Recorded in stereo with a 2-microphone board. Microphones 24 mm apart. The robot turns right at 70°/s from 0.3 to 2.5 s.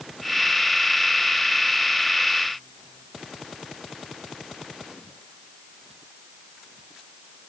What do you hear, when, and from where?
Only background noise.